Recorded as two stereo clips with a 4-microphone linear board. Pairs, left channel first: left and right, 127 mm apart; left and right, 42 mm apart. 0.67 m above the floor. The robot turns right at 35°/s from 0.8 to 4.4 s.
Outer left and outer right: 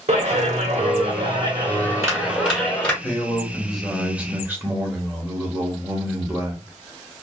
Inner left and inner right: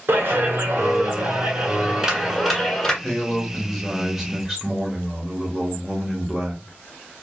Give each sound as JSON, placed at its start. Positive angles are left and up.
{"t": 0.1, "sound": "a clap", "azimuth_deg": -65, "distance_m": 1.2}
{"t": 3.0, "sound": "a man speaking", "azimuth_deg": 155, "distance_m": 1.0}